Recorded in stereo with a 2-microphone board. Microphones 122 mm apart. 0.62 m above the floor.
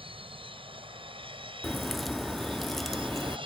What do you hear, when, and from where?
0.0 s an aircraft: 45° right (ahead or behind)
1.6 s a crack: centre (ahead or behind)